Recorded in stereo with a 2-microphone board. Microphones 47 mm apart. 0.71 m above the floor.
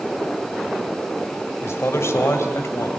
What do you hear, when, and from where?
1.6 s a man speaking: 70° left (ahead or behind), 2.5 m; by 2.9 s 80° left, 3 m